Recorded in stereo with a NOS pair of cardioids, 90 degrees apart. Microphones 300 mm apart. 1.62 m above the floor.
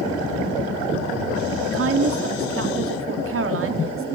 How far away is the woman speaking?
About 4 m.